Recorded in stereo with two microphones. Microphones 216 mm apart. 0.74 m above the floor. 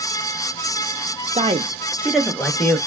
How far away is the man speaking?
About 0.5 m.